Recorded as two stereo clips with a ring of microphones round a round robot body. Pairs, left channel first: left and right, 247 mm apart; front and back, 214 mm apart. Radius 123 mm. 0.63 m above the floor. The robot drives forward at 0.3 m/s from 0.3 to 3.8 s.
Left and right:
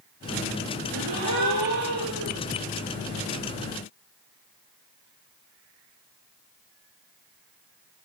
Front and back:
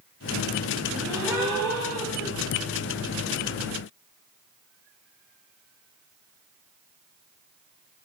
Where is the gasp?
90° right, 8 m.